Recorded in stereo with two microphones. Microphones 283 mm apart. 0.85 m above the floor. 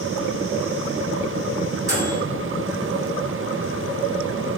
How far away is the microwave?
About 1.0 m.